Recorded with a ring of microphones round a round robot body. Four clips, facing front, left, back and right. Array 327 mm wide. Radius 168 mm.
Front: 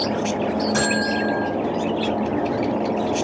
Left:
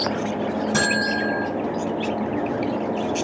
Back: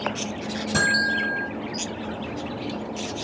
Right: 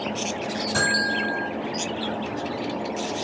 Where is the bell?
145° left, 5 m.